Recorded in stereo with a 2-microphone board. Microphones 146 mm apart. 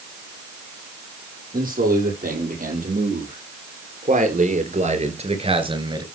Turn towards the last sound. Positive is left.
turn(degrees=-30)  # may be behind; listen again after turning